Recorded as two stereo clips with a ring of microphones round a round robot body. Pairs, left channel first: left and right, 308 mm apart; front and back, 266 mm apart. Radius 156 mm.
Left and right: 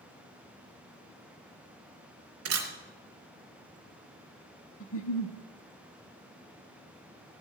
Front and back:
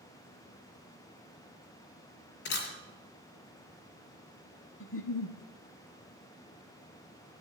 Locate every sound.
2.5 s a camera shutter: 55° right, 2.5 m
4.8 s a giggle: 40° left, 1.2 m